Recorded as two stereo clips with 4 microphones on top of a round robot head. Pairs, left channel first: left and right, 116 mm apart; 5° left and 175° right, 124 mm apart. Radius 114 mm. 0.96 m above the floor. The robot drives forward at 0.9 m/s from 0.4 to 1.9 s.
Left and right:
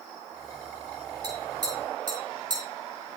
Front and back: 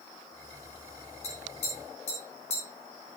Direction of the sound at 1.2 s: 35° right.